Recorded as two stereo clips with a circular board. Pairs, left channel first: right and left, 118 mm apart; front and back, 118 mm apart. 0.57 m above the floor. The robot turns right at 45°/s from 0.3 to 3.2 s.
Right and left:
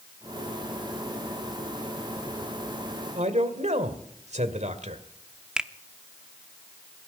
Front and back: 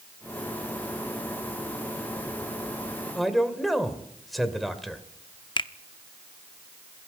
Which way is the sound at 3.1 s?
90° left.